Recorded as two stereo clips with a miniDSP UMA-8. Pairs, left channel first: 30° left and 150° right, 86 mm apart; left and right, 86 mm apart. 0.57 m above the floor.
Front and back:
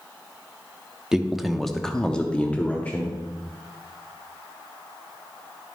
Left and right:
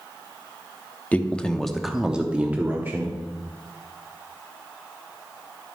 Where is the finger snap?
No finger snap in this recording.